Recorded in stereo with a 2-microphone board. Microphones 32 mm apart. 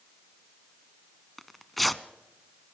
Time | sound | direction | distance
1.4 | tearing paper | 5° left (ahead or behind) | 0.7 m